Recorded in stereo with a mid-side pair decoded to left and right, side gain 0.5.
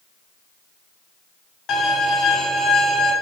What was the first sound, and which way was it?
A violin, 60° left.